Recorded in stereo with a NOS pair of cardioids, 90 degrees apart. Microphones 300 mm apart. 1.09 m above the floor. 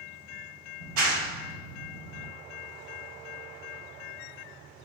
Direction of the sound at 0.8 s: 65° right.